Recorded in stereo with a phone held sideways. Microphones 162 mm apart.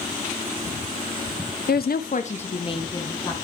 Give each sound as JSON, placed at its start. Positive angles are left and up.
{"t": 1.7, "sound": "a woman speaking", "side_deg": 85, "distance_m": 0.7}